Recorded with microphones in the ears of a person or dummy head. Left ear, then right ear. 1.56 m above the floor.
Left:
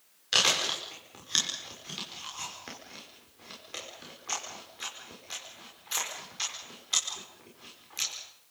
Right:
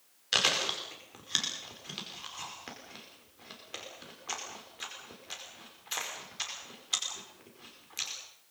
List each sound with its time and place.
0.3 s chewing: centre (ahead or behind), 5 m